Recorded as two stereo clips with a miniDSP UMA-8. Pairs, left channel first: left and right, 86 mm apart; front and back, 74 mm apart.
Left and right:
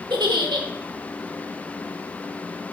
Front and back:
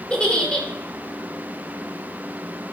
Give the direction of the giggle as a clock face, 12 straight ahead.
3 o'clock.